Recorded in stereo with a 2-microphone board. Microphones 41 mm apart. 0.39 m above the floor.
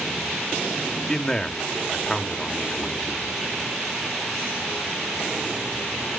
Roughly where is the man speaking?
Centre.